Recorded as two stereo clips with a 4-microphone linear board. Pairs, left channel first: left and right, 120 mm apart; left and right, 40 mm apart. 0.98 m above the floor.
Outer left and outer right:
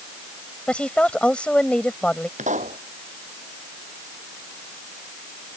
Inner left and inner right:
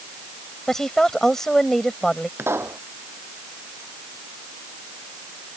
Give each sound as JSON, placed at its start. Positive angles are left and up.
{"t": 0.7, "sound": "a woman speaking", "side_deg": 10}
{"t": 2.4, "sound": "a pop", "side_deg": -85}